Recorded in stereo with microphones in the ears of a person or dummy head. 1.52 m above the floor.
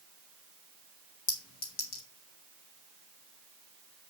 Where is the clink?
50° left (ahead or behind), 2.0 m.